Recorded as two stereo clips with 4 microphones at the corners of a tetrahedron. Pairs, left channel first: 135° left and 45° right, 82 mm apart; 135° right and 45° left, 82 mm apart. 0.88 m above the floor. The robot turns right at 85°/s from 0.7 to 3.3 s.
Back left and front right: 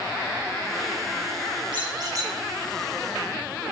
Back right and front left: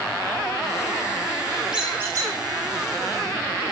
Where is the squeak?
40° right, 2.5 m; by 2.3 s 15° left, 2.5 m.